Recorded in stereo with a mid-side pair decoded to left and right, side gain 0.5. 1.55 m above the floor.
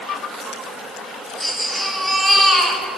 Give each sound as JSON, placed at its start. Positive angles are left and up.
{"t": 1.4, "sound": "a baby crying", "azimuth_deg": 0, "distance_m": 5.0}